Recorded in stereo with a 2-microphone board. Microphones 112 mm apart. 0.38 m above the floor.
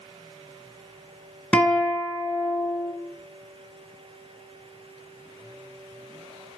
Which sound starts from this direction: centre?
A guitar, at 1.5 s.